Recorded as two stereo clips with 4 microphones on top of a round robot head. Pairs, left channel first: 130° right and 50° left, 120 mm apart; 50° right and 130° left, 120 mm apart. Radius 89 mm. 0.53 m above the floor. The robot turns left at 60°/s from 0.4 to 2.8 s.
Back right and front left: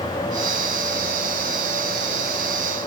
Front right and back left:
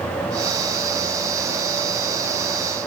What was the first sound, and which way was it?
Only background noise.